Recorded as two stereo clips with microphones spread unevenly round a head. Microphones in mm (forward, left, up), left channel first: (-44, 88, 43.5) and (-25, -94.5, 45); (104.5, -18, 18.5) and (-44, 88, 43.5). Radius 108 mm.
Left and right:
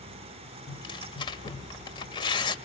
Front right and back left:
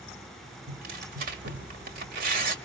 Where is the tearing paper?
155° left, 1.7 m.